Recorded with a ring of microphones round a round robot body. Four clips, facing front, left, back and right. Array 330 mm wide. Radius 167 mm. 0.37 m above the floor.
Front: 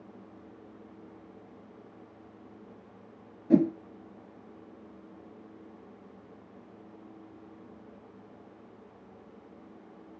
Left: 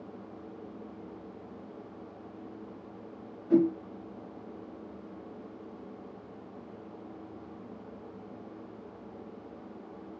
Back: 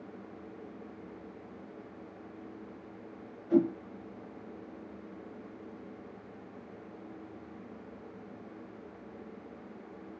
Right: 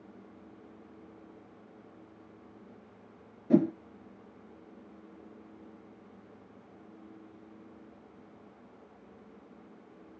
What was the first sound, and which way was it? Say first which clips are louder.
A whoosh: left 1 dB, front 3 dB; 45° right.